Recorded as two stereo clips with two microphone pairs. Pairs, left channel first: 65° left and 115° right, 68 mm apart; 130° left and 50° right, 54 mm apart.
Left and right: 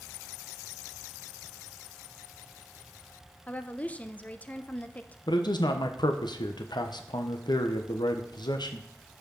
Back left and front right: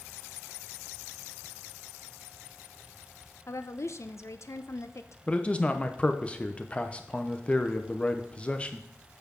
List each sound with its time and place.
3.5 s a woman speaking: 135° left, 0.7 m
5.3 s a man speaking: 60° left, 1.0 m